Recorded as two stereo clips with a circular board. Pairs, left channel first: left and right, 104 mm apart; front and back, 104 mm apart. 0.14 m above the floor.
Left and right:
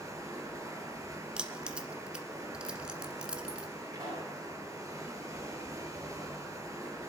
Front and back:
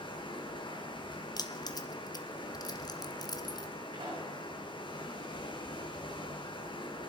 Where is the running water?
35° right, 2 m.